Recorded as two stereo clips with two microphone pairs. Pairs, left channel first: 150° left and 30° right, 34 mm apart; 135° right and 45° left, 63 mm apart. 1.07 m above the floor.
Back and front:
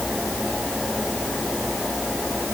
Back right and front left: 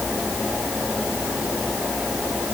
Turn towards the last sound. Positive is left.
No sound to turn to.